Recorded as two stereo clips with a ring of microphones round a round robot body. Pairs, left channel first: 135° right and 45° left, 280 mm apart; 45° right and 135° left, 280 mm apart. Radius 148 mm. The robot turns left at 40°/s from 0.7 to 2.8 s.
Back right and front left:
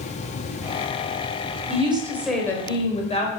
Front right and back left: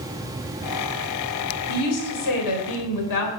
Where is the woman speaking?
20° right, 3.5 m; by 3.3 s 65° right, 3.5 m.